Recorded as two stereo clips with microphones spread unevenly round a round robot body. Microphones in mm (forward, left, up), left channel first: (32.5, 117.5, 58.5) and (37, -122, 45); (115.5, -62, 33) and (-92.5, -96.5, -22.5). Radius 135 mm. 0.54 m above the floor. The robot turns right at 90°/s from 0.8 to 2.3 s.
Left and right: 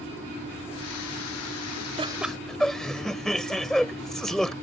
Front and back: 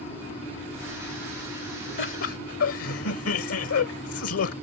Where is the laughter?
25° right; by 4.5 s 5° left.